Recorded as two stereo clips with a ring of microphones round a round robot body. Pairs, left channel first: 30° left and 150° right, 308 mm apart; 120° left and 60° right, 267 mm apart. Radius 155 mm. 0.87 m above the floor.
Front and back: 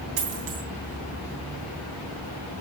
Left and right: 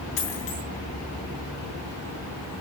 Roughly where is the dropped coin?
Behind.